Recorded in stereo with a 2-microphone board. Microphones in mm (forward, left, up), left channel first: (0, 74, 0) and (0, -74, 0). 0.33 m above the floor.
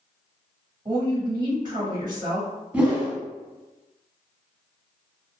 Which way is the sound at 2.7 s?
10° right (ahead or behind).